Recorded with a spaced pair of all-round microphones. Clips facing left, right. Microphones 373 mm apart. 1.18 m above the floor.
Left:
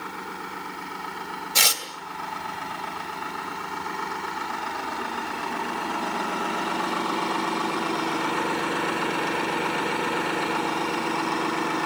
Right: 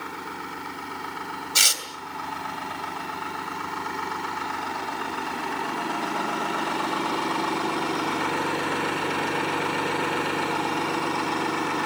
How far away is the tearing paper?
About 2.5 m.